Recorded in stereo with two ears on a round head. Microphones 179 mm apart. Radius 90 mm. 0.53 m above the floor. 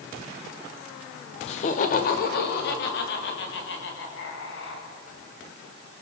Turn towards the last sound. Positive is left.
turn(degrees=65)  # may be behind; listen again after turning